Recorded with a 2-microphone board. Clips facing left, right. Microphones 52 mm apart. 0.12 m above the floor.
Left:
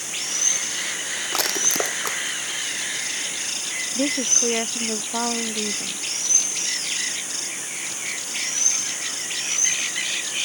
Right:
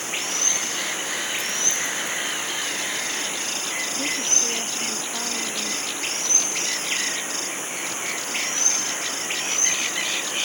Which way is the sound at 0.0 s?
30° right (ahead or behind).